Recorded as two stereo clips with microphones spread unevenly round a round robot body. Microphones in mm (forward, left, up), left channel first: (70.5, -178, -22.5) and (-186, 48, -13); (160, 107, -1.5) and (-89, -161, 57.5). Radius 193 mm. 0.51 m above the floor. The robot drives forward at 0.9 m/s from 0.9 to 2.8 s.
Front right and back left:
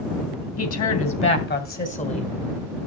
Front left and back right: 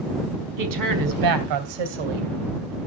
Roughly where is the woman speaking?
Right.